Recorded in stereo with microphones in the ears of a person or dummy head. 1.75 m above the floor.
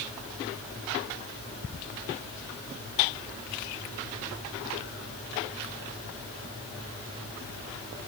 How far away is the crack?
I don't hear a crack.